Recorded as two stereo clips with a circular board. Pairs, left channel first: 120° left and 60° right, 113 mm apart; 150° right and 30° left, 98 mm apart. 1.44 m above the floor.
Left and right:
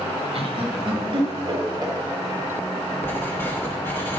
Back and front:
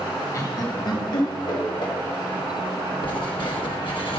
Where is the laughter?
95° right, 1.3 m; by 1.9 s 110° right, 2.5 m.